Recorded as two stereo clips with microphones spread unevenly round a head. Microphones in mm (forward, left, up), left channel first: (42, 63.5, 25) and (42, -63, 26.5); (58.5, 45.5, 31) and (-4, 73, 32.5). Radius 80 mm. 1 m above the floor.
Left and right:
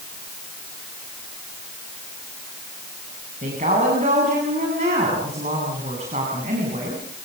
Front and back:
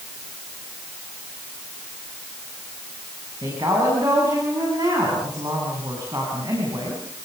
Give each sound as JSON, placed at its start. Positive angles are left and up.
{"t": 3.4, "sound": "a woman speaking", "azimuth_deg": -140, "distance_m": 8.0}